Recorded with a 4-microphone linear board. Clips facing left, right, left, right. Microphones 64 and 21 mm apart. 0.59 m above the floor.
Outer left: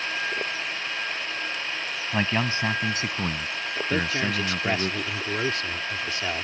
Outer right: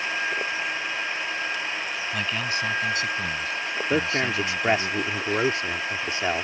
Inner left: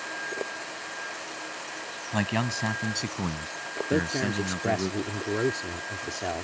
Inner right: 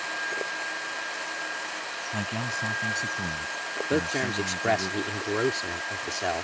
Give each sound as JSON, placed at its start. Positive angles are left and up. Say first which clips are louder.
{"t": 2.1, "sound": "a man speaking", "louder": "outer left 4 dB, inner left 4 dB", "side_deg": 35}
{"t": 3.9, "sound": "a man speaking", "louder": "outer right 2 dB, even", "side_deg": -25}